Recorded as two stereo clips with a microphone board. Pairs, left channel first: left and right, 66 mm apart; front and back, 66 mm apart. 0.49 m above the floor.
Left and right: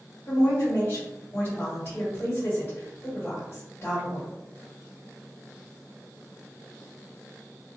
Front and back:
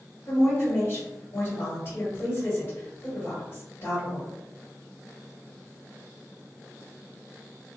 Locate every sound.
0.3 s a woman speaking: 45° left, 1.6 m